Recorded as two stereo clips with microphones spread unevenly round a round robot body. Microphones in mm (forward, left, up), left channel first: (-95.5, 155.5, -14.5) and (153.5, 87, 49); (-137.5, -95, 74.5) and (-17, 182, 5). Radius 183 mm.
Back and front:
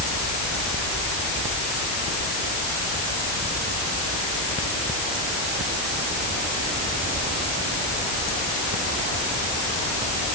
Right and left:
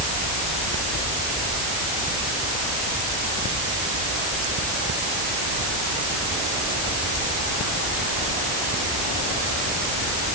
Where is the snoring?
No snoring in this recording.